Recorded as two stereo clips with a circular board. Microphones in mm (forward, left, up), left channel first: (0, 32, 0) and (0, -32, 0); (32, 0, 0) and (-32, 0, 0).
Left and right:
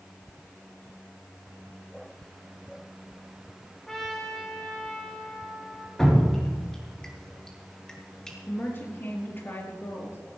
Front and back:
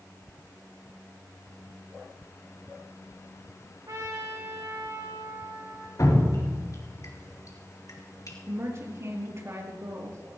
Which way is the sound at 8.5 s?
140° left.